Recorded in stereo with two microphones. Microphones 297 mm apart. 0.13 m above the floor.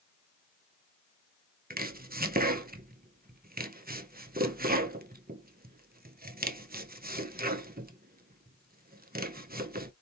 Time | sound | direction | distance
1.7 | chopping | 30° right (ahead or behind) | 0.5 m